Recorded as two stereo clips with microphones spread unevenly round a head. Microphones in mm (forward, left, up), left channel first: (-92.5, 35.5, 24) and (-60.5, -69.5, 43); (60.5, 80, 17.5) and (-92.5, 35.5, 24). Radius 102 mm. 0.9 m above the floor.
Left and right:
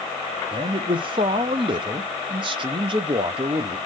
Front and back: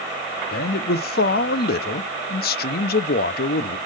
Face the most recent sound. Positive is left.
turn(degrees=-15)